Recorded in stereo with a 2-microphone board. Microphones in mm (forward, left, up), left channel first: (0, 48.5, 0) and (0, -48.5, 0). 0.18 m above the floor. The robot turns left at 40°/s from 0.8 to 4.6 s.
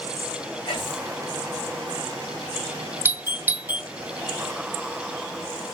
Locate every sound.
0.7 s whispering: 50° left (ahead or behind), 4 m; by 1.1 s 40° left (ahead or behind), 4 m
3.0 s a doorbell: 20° right (ahead or behind), 1.7 m; by 3.9 s 15° right (ahead or behind), 1.7 m